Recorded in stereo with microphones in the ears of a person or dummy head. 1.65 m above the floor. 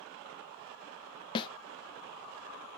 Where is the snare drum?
25° left (ahead or behind), 0.5 m.